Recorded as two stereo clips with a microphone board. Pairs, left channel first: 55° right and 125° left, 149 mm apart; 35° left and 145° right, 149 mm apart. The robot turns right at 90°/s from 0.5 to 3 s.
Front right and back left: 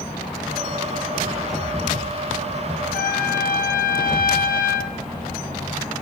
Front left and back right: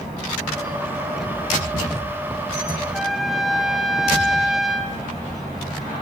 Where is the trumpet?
65° right, 0.8 m; by 4.9 s 60° right, 0.8 m.